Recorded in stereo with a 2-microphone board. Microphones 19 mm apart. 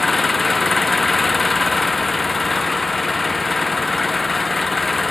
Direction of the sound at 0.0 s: 5° left (ahead or behind).